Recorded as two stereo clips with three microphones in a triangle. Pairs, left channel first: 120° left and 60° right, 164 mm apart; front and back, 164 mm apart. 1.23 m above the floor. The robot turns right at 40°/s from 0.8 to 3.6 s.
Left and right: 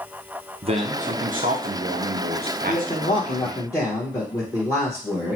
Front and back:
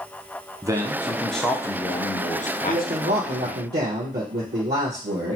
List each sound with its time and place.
0.6 s a man speaking: 110° right, 0.6 m; by 3.7 s 5° left, 0.6 m
2.7 s a man speaking: 155° left, 0.8 m; by 5.4 s 170° right, 0.8 m